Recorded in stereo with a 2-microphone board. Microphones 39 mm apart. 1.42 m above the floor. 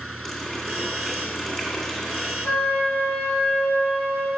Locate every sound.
0.2 s a running tap: 10° left (ahead or behind), 2.5 m
2.5 s a flute: 40° left (ahead or behind), 2.5 m